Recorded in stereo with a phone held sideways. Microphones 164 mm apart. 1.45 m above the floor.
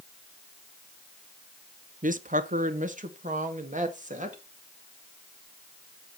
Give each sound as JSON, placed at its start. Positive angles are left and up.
{"t": 2.0, "sound": "a woman speaking", "side_deg": -55, "distance_m": 0.6}